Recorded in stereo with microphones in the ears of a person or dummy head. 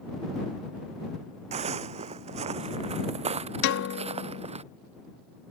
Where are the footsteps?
40° right (ahead or behind); by 4.6 s 35° right (ahead or behind).